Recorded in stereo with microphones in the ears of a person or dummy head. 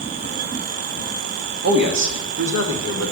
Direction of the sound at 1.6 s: 45° right (ahead or behind).